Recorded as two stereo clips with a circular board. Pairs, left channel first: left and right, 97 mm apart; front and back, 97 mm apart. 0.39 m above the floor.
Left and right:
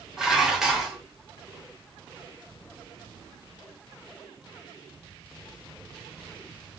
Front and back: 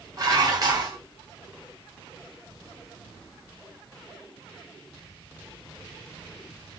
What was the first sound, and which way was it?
Dishes clattering, 170° right.